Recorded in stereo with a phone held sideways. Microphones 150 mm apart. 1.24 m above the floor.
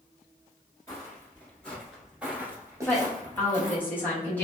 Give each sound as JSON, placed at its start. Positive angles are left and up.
{"t": 0.9, "sound": "footsteps", "side_deg": 20, "distance_m": 1.4}
{"t": 2.9, "sound": "a woman speaking", "side_deg": 10, "distance_m": 1.1}